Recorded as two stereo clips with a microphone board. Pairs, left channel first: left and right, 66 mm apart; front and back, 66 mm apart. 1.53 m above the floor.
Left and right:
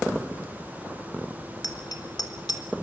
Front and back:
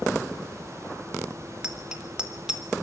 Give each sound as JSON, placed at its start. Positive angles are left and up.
{"t": 1.6, "sound": "a bicycle bell", "azimuth_deg": 100, "distance_m": 3.5}